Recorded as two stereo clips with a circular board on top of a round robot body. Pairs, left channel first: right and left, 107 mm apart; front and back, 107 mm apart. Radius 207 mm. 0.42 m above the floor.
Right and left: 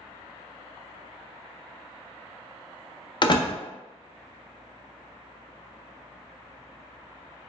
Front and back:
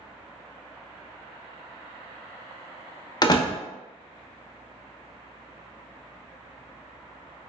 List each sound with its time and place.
3.2 s a door slam: 50° right, 0.9 m